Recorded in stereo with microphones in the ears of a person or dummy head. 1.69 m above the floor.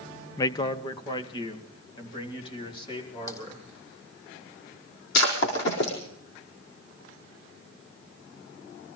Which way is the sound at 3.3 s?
25° left (ahead or behind).